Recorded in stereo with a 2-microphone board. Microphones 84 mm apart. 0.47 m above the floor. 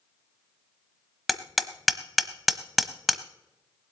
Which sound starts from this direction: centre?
Hammering, at 1.3 s.